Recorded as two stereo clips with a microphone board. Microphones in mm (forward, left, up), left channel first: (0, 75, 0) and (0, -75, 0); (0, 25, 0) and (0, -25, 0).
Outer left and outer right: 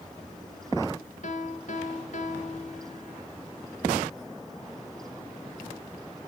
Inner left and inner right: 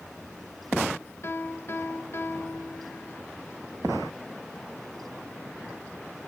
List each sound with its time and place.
1.2 s a piano: 55° left (ahead or behind), 1.2 m